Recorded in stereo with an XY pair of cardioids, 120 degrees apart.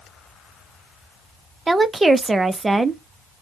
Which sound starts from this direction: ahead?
A woman speaking, at 1.7 s.